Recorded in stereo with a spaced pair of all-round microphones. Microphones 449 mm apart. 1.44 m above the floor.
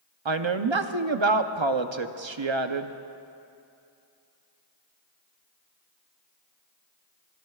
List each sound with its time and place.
0.2 s a woman speaking: 80° right, 0.8 m